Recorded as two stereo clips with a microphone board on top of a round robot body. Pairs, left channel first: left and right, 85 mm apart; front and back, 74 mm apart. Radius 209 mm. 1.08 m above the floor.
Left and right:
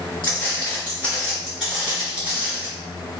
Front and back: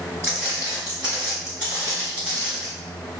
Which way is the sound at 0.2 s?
115° left.